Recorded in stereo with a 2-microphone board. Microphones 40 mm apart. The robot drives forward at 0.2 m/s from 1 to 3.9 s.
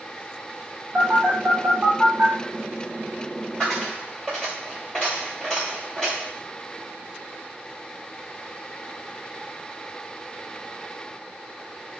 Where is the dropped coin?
5° left (ahead or behind), 1.5 m.